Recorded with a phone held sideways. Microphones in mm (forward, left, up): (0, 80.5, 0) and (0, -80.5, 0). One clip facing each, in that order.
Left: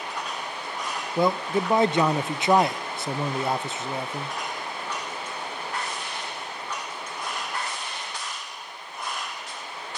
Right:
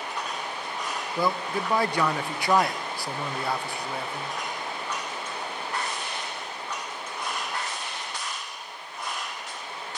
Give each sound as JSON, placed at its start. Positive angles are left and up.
{"t": 1.2, "sound": "a man speaking", "side_deg": 20, "distance_m": 0.7}